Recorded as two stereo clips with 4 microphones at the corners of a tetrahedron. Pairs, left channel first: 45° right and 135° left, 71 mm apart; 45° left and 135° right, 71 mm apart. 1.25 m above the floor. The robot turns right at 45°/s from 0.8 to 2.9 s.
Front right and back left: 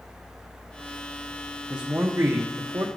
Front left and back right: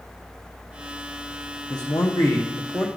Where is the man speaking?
60° left, 0.7 m; by 2.9 s 110° left, 0.7 m.